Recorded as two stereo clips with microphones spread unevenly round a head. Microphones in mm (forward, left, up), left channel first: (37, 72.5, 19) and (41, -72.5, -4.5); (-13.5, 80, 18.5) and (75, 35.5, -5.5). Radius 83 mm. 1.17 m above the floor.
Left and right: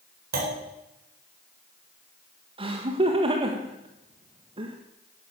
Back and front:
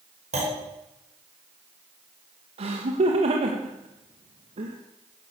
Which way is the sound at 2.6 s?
40° right.